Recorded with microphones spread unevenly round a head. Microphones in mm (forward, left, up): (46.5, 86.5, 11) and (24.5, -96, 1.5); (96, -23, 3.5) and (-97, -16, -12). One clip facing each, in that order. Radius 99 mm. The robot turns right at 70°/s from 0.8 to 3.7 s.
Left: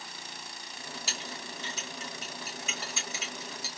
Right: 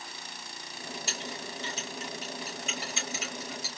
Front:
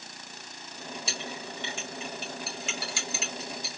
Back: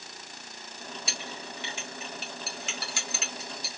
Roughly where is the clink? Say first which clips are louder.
Right 3 dB, front 3 dB; ahead left.